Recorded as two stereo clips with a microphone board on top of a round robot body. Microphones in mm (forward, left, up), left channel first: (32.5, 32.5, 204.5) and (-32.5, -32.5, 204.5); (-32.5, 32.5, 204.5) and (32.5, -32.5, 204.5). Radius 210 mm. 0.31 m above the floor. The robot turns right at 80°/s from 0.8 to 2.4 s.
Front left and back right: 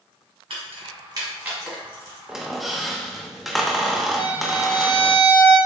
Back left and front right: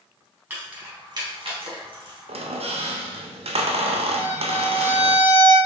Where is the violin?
70° left, 1.7 m.